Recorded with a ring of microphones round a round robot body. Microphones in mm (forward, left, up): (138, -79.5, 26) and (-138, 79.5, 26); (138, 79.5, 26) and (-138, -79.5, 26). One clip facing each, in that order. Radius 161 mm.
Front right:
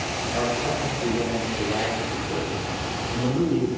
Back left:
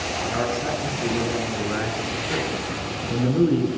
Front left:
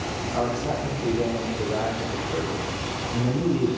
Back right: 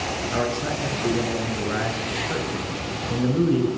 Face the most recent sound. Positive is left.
turn(degrees=-160)